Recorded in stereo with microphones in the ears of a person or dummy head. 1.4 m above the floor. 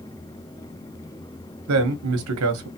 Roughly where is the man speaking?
Right.